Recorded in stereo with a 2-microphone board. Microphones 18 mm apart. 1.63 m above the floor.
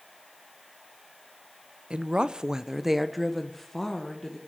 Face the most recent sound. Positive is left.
turn(degrees=20)  # may be behind; listen again after turning